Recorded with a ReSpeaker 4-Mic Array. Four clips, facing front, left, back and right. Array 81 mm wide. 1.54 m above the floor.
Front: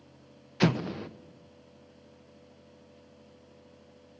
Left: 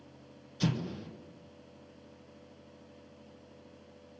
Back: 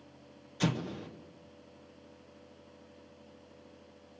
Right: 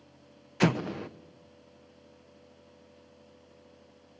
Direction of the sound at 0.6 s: 60° right.